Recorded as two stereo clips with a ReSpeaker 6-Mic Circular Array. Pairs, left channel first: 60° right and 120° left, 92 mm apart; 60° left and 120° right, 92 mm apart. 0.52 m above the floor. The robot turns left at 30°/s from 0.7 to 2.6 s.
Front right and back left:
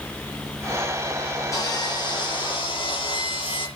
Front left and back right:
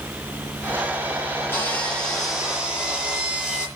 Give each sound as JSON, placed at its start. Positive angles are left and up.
{"t": 1.5, "sound": "sawing", "azimuth_deg": -5, "distance_m": 7.5}